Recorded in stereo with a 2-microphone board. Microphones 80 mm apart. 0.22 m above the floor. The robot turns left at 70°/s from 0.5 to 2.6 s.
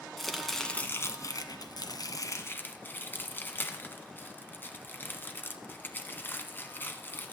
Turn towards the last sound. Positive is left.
turn(degrees=25)  # may be behind; listen again after turning